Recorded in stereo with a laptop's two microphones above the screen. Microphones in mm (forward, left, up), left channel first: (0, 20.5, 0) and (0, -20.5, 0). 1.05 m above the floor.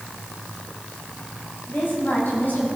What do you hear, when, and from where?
1.7 s a woman speaking: 60° left (ahead or behind), 6 m